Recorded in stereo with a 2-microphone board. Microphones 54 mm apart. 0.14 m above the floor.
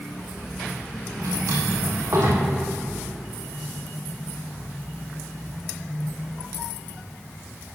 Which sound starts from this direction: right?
A drawer, at 1.2 s.